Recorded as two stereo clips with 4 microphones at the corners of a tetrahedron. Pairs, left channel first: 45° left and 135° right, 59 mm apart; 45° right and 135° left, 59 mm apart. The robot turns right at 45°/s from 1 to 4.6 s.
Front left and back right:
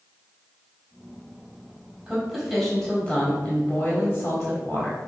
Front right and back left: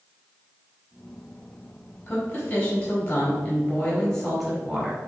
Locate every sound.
2.1 s a woman speaking: 55° right, 1.1 m; by 5.0 s 60° left, 1.1 m